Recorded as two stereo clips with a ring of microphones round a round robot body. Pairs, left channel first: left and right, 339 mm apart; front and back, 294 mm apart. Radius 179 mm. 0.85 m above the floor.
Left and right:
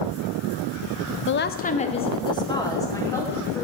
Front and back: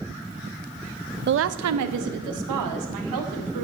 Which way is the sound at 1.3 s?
135° left.